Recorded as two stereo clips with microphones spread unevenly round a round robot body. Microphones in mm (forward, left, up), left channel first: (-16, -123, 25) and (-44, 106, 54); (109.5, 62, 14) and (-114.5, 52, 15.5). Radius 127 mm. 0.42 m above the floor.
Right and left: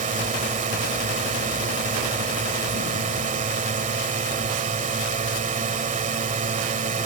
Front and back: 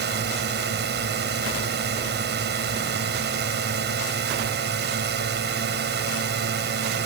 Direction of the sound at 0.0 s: 155° left.